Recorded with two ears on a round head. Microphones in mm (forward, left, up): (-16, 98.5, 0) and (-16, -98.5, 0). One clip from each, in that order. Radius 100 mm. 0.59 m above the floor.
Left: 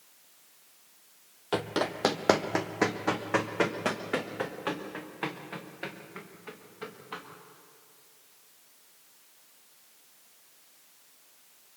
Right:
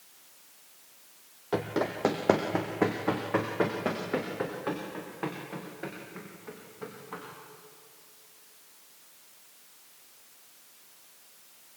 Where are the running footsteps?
40° left (ahead or behind), 1.2 m; by 7.2 s 70° left (ahead or behind), 4.5 m.